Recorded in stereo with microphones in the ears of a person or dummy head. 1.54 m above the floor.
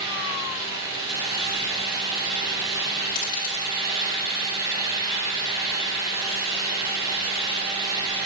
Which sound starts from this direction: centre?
A fan, at 0.0 s.